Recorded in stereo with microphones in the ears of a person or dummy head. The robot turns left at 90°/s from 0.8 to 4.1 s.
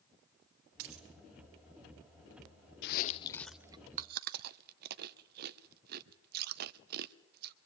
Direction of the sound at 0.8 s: 55° right (ahead or behind).